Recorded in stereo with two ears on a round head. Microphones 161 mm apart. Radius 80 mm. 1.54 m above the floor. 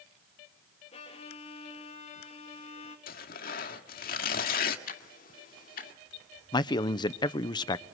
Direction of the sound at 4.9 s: 50° left (ahead or behind).